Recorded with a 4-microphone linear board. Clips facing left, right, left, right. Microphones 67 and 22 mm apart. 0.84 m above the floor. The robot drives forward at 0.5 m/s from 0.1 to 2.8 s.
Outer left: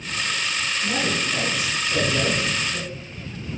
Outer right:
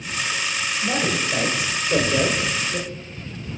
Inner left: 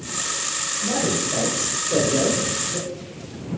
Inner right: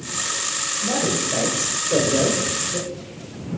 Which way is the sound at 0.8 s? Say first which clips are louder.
Outer right 2 dB, even; 55° right (ahead or behind).